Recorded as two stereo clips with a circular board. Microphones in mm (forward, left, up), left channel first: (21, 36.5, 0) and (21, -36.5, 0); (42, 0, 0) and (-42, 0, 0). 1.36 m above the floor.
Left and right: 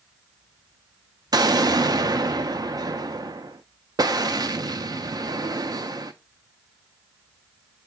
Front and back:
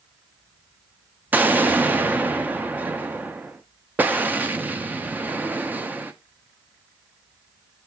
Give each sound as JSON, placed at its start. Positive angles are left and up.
{"t": 1.3, "sound": "an explosion", "azimuth_deg": -110, "distance_m": 0.5}